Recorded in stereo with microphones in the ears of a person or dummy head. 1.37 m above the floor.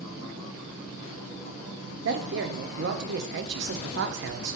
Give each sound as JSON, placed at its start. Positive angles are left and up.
{"t": 2.0, "sound": "a man speaking", "side_deg": -50, "distance_m": 0.6}